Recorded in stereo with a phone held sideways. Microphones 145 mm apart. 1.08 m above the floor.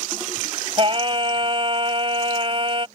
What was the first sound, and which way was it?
Singing, 40° right (ahead or behind).